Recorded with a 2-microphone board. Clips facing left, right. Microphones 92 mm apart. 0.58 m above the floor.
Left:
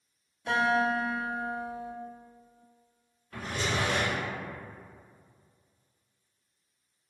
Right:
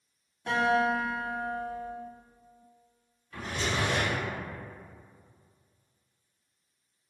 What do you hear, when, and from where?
0.5 s a guitar: 40° right (ahead or behind), 1.6 m
3.3 s a drawer: 50° left (ahead or behind), 0.9 m